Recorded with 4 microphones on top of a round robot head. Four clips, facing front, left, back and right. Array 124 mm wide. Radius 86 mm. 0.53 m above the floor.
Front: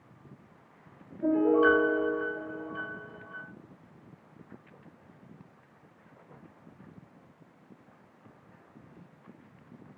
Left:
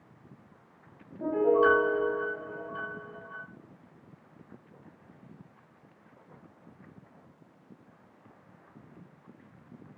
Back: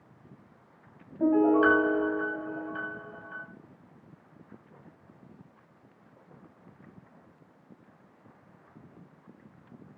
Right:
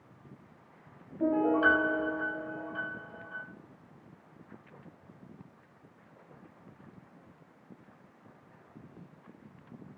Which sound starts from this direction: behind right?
A piano, at 1.2 s.